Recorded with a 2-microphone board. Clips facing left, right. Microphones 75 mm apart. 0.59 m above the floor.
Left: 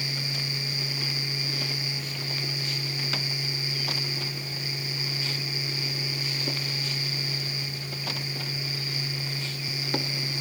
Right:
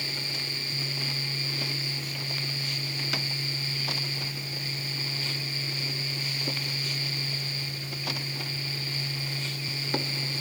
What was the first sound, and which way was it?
Only background noise.